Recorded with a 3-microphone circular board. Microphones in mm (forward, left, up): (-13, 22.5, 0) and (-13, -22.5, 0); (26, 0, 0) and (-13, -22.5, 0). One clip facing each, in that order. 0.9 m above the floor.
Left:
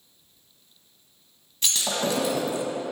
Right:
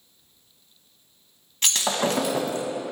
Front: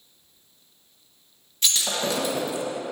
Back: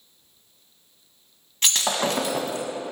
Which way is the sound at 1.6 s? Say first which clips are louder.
Right 2 dB, back 2 dB; 120° right.